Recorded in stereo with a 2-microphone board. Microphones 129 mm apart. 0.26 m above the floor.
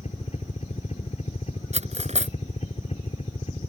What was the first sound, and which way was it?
A helicopter, 60° left (ahead or behind).